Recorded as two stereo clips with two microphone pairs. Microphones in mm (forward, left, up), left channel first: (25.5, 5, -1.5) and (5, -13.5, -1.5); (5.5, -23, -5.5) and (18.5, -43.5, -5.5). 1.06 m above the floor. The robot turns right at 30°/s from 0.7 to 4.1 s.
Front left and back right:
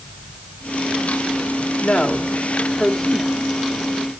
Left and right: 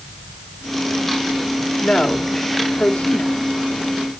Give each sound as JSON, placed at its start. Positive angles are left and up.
{"t": 1.8, "sound": "a woman speaking", "azimuth_deg": 80, "distance_m": 1.9}